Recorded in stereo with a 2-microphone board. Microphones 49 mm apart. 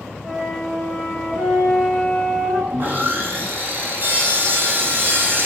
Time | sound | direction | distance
0.2 | a flute | 5° right (ahead or behind) | 2.5 m
2.7 | sawing | 45° right (ahead or behind) | 1.4 m